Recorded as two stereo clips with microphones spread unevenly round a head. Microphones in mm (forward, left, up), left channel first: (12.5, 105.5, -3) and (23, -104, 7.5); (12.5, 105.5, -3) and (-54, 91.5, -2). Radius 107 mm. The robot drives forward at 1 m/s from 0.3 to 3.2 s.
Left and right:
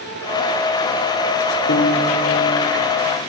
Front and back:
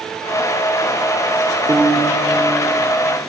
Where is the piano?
135° left, 3 m; by 2.8 s 145° left, 4 m.